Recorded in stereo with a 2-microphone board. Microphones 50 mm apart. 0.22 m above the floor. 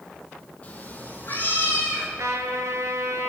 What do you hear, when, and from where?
0.6 s a cat meowing: 25° left (ahead or behind), 0.6 m; by 2.1 s 40° left (ahead or behind), 1.3 m
2.2 s a trumpet: 85° right, 0.6 m